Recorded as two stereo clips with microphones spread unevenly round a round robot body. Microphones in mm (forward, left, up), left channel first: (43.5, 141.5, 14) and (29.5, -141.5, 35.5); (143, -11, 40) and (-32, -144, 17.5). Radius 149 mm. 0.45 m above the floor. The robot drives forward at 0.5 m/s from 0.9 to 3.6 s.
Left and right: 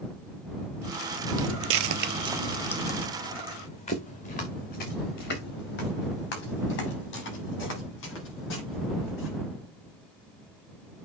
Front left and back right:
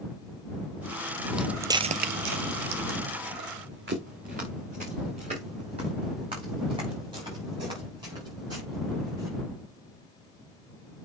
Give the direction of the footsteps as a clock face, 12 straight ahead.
2 o'clock.